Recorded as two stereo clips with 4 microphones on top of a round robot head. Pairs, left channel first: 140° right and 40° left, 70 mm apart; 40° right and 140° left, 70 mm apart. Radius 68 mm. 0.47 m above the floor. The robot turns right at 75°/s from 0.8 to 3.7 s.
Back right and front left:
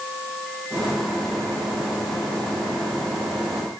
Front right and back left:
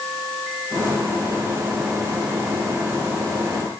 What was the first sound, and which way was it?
Only background noise.